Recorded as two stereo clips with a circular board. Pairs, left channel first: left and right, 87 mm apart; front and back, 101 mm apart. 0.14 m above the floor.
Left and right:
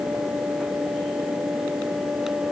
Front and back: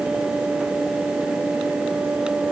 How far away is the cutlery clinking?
No cutlery clinking in this recording.